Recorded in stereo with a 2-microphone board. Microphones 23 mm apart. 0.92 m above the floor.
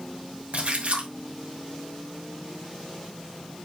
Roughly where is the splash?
Right.